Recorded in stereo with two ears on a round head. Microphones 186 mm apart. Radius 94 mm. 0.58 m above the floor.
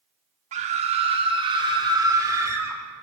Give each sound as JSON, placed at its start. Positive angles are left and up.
{"t": 0.5, "sound": "a scream", "side_deg": -35, "distance_m": 1.4}